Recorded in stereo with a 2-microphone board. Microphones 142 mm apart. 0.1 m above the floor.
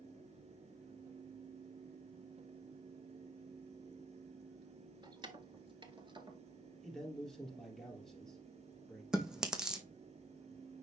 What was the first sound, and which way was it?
Keys jangling, 30° right (ahead or behind).